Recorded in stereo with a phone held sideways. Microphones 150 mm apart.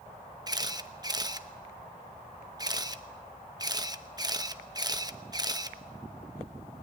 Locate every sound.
0.5 s a camera shutter: 25° right (ahead or behind), 0.9 m